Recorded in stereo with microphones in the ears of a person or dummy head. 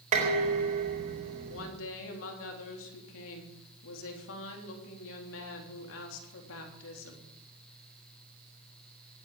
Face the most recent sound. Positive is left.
turn(degrees=75)  # may be behind; listen again after turning